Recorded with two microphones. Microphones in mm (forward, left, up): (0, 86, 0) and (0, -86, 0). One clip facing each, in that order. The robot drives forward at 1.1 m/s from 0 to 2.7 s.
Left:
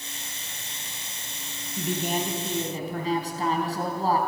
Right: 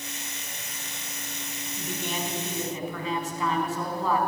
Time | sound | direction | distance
1.8 | a woman speaking | 50° left (ahead or behind) | 3 m